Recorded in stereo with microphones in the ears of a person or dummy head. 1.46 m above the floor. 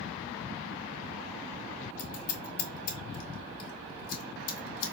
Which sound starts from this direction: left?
Scissors, at 2.0 s.